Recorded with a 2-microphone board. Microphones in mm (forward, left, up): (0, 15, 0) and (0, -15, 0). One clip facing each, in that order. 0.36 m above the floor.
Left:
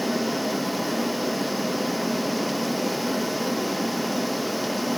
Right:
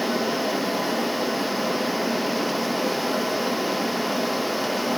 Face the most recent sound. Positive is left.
No sound to turn to.